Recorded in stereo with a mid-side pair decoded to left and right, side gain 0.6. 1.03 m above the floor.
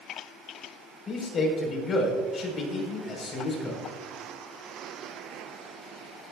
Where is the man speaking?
40° left, 4.5 m.